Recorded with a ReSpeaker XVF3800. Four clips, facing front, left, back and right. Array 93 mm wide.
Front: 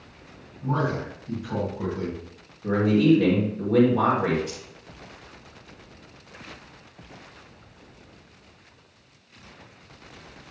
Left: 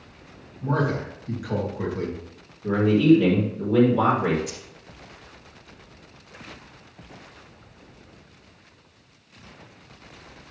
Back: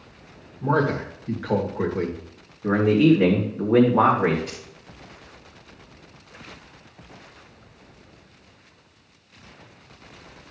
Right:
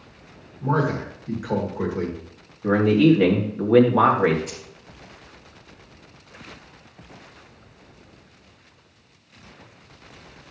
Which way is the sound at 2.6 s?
120° right.